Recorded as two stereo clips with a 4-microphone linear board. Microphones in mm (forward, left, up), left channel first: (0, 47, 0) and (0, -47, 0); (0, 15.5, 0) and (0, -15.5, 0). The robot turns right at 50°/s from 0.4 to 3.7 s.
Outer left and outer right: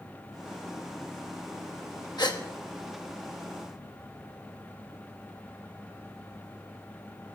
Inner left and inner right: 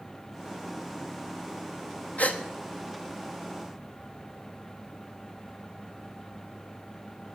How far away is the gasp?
About 1.2 m.